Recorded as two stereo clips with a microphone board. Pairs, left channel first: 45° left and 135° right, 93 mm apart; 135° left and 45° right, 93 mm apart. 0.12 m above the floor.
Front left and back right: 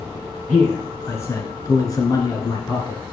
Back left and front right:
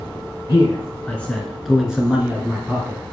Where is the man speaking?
105° left, 1.3 m; by 3.0 s 10° left, 1.8 m.